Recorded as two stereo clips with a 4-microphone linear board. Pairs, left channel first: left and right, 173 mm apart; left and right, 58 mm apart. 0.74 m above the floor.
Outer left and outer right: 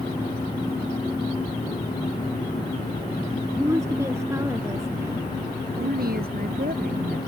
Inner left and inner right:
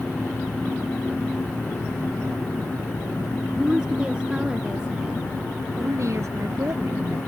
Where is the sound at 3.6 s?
15° right (ahead or behind).